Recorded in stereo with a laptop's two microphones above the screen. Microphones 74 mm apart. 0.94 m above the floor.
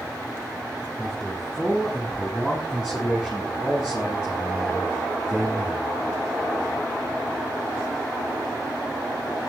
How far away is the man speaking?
About 7 m.